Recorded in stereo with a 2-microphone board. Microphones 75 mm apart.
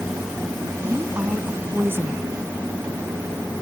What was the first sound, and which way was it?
A woman speaking, 30° right (ahead or behind).